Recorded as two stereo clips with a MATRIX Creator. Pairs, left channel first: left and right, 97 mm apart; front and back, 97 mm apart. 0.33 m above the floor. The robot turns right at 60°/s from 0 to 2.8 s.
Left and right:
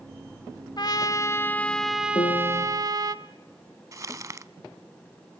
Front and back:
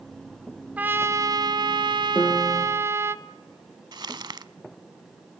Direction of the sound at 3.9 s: 145° right.